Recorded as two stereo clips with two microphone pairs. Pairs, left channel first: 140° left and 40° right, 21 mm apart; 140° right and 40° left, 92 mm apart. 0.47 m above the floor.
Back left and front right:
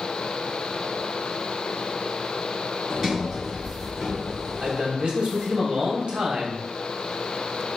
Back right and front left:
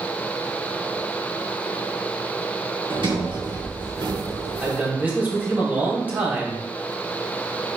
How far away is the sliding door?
About 2.5 m.